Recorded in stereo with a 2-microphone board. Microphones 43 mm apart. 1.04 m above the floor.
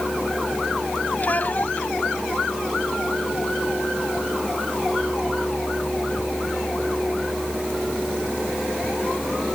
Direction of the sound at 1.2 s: 40° left (ahead or behind).